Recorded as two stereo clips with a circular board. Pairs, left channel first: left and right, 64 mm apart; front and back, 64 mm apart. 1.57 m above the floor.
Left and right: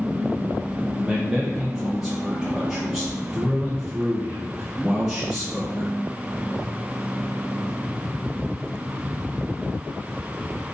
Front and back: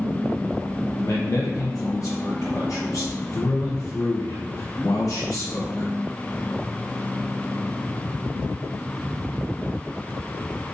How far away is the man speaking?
About 0.6 m.